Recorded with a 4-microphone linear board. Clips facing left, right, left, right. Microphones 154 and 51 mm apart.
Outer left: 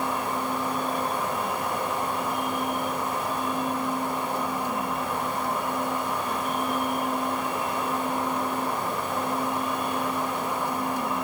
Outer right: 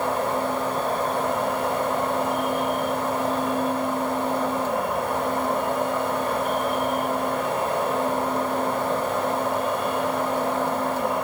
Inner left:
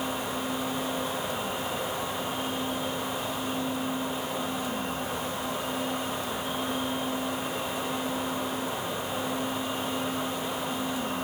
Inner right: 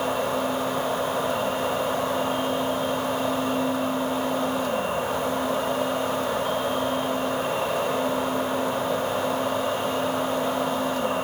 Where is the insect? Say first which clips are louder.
Outer right 5 dB, inner right 7 dB; 50° right (ahead or behind), 3.5 m.